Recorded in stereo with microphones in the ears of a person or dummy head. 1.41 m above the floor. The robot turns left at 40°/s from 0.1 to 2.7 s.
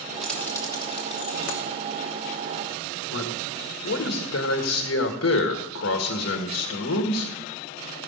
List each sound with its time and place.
0.2 s keys jangling: centre (ahead or behind), 1.0 m; by 1.6 s 55° left (ahead or behind), 1.0 m
3.1 s a man speaking: 65° left (ahead or behind), 1.5 m